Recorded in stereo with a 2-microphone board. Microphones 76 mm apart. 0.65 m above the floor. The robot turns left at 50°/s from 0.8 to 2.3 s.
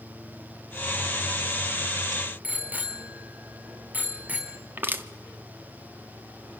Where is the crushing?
30° right (ahead or behind), 1.4 m.